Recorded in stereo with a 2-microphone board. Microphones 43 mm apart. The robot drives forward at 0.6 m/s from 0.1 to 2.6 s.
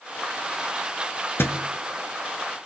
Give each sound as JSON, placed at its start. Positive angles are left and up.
{"t": 1.4, "sound": "a thud", "side_deg": 65, "distance_m": 1.3}